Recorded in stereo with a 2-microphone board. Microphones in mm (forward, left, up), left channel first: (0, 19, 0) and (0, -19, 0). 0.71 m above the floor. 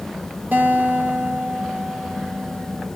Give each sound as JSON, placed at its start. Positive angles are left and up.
{"t": 0.5, "sound": "a guitar", "side_deg": -55, "distance_m": 1.6}